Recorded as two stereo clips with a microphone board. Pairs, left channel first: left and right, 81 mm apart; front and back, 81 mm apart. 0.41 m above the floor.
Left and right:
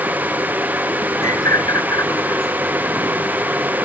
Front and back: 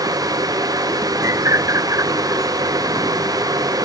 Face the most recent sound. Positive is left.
turn(degrees=135)